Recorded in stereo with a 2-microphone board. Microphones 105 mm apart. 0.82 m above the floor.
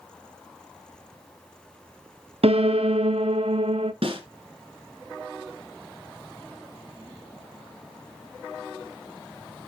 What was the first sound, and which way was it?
A piano, 75° right (ahead or behind).